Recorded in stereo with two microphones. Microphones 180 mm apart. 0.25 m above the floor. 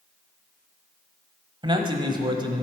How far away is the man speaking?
About 1.1 m.